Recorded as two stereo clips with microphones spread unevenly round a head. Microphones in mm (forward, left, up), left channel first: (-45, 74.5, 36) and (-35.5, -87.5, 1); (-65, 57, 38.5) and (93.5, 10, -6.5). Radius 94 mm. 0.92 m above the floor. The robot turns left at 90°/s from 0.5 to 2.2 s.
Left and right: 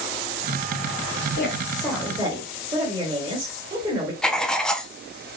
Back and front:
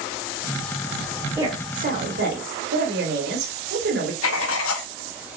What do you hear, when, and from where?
1.4 s a woman speaking: 55° left, 2.5 m; by 4.1 s 20° right, 2.5 m
4.2 s writing: straight behind, 0.7 m